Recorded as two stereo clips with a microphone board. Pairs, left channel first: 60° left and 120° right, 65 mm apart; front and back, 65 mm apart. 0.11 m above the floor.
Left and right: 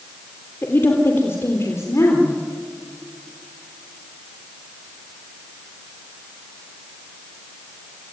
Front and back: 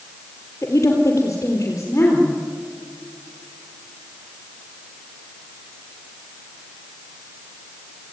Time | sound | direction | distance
0.6 | a woman speaking | 25° left | 2.5 m